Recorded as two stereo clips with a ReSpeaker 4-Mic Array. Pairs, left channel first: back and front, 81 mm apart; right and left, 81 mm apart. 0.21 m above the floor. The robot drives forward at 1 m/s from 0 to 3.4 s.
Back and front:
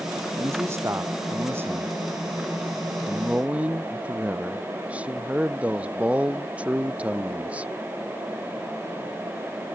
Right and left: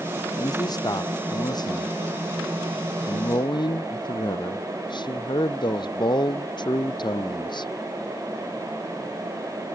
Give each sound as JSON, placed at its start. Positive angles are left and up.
{"t": 0.4, "sound": "a man speaking", "azimuth_deg": -55}